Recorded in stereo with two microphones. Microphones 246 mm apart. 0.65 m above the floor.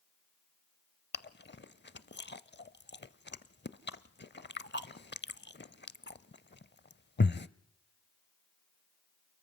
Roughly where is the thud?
I don't hear a thud.